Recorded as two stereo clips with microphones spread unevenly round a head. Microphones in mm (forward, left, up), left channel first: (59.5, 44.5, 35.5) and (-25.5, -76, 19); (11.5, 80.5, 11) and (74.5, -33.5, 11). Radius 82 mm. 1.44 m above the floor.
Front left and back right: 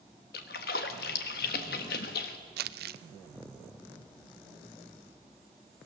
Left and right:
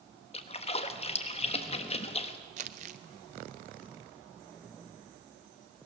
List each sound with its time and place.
0.3 s a splash: 80° left, 1.3 m
2.6 s crumpling: 110° right, 0.7 m